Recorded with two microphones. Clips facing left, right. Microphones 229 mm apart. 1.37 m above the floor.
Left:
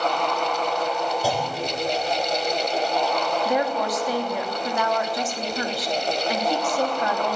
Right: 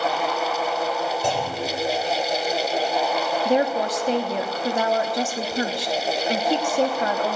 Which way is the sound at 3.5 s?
30° right (ahead or behind).